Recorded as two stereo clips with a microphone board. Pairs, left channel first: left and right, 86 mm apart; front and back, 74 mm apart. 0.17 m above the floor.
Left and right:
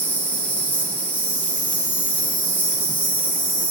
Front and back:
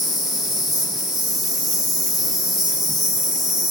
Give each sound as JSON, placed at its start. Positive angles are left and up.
{"t": 0.0, "sound": "an insect", "azimuth_deg": 90, "distance_m": 1.0}